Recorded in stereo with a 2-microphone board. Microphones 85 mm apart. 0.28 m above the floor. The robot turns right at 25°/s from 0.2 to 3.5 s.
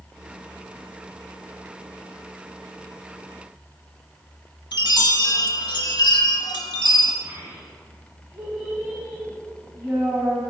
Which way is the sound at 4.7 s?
60° left (ahead or behind).